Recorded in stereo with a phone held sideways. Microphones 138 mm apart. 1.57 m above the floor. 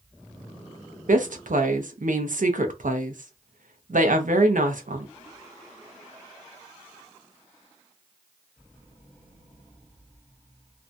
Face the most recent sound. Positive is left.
turn(degrees=-80)